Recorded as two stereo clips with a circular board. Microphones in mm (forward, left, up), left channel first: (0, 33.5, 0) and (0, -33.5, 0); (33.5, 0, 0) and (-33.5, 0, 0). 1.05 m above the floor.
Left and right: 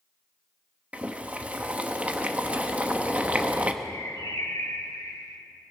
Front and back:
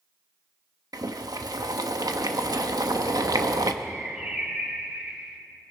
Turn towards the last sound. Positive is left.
turn(degrees=105)